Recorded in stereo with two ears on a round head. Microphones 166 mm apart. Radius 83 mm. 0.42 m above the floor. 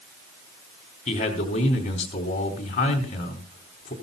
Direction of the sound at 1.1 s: 40° left (ahead or behind).